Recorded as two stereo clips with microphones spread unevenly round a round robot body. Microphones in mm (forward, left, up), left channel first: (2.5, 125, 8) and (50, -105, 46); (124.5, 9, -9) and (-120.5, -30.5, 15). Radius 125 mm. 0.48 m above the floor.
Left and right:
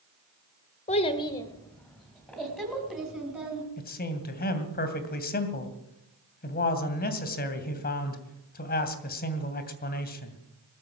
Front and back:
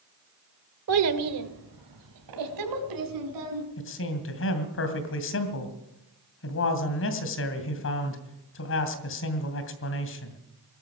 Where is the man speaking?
50° left, 2.5 m.